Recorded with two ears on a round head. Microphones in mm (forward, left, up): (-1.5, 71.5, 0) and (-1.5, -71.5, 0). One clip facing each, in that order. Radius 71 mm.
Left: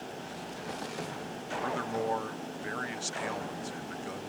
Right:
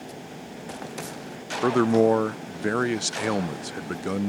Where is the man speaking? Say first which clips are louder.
Right 15 dB; 70° right (ahead or behind).